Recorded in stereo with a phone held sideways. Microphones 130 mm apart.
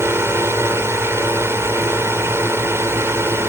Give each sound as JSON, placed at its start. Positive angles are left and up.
{"t": 0.0, "sound": "a drone", "side_deg": -20}